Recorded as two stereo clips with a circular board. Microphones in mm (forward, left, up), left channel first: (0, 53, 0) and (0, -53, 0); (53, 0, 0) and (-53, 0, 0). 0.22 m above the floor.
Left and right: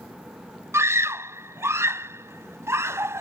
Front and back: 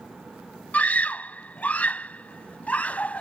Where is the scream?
60° right.